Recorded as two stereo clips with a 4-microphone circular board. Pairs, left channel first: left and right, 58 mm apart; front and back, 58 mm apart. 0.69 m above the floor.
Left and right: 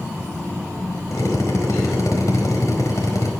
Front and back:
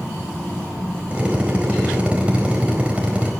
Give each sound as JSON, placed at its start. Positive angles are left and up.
{"t": 1.1, "sound": "a drill", "azimuth_deg": 110, "distance_m": 4.0}